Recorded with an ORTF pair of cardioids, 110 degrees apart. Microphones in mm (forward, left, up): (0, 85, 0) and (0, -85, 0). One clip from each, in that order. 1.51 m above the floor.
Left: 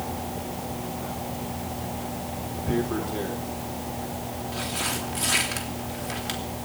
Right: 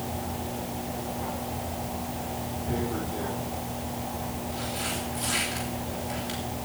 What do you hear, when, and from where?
2.7 s tearing paper: 40° left, 3.5 m